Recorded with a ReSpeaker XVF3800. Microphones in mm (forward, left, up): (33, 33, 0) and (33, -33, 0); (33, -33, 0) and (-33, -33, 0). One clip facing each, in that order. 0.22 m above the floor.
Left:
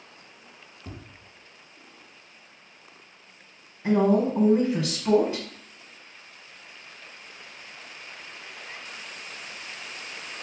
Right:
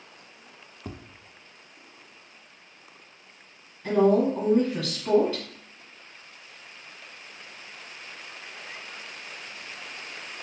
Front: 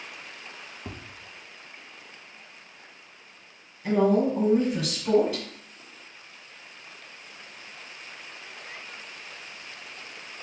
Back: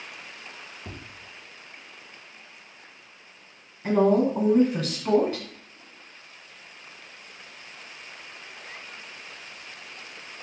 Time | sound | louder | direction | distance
0.8 | tapping | right 3 dB, front 2 dB | 65° right | 0.6 m
3.8 | a woman speaking | right 1 dB, back 1 dB | 140° left | 1.4 m